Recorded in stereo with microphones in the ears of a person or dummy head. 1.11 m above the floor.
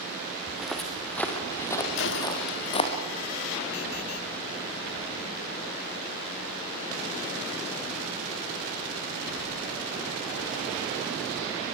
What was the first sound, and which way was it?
Footsteps, 5° right (ahead or behind).